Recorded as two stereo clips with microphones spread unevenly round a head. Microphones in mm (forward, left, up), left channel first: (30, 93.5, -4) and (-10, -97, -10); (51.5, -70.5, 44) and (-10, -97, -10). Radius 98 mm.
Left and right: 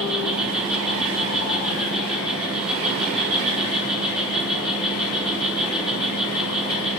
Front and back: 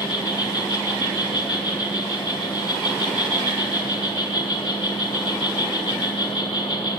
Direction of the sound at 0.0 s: 15° right.